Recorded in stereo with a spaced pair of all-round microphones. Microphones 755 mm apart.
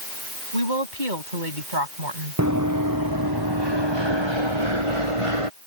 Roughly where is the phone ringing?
No phone ringing in this recording.